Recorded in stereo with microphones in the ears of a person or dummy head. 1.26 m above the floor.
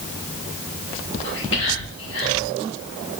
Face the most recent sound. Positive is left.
turn(degrees=60)  # may be behind; listen again after turning